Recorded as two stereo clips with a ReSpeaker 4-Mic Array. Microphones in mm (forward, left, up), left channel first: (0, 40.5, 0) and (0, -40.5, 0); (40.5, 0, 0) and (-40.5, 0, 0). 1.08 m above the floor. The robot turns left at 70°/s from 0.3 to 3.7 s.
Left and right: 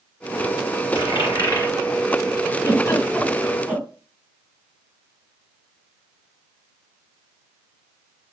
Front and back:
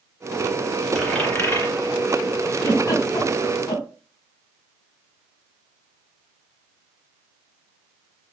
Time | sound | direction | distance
0.9 | a dropped coin | 90° left | 2.5 m
2.5 | a giggle | 55° left | 2.5 m